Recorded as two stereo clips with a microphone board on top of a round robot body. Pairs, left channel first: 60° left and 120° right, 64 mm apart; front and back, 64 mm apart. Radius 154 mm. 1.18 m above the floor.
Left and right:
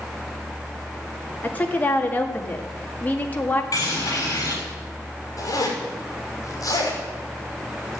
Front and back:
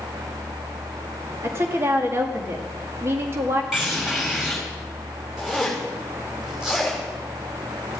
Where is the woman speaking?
125° left, 2 m.